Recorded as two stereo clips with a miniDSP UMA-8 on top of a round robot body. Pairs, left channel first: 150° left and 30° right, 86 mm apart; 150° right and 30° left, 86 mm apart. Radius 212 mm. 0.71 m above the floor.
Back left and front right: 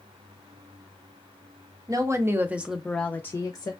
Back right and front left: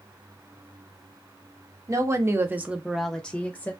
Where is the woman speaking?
5° right, 0.9 m; by 3.7 s 155° left, 0.8 m.